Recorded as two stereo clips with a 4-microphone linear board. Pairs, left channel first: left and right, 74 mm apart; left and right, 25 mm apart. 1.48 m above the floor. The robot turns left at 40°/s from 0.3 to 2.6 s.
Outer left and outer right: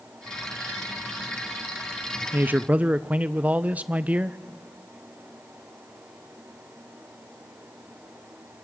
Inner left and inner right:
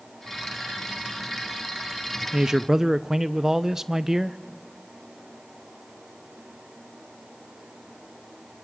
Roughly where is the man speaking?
Right.